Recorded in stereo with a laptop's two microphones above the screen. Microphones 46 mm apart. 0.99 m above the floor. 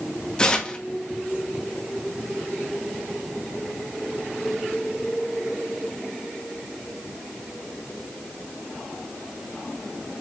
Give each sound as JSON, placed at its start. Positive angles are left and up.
{"t": 0.4, "sound": "tearing paper", "side_deg": 20, "distance_m": 1.0}